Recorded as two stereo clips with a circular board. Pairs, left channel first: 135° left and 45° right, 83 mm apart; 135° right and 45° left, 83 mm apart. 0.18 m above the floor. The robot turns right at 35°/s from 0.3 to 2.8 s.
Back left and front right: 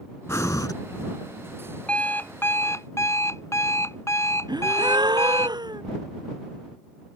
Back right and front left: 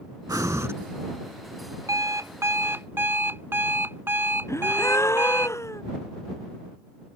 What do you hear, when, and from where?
0.3 s breathing: 85° left; by 0.7 s 100° left
1.9 s an alarm clock: 65° left; by 5.5 s 95° left
4.5 s a gasp: 80° right